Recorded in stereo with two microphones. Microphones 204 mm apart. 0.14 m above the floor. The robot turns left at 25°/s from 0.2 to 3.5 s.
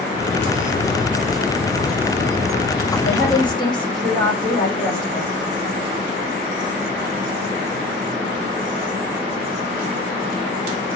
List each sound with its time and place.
3.0 s a woman speaking: 35° left (ahead or behind), 6.5 m; by 5.3 s 20° left (ahead or behind), 6.5 m